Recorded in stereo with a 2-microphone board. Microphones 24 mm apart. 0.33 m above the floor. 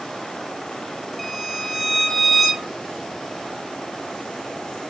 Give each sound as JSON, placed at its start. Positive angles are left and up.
{"t": 1.2, "sound": "a violin", "side_deg": 5, "distance_m": 1.6}